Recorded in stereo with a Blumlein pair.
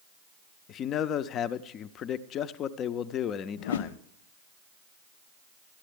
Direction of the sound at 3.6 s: 65° left.